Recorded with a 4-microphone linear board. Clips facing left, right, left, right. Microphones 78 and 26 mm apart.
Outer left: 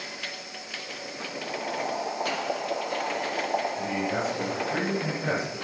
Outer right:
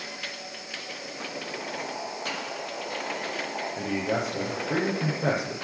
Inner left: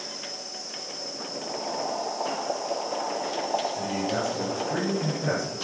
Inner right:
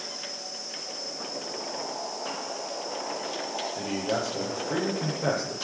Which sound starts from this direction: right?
A man speaking, at 3.8 s.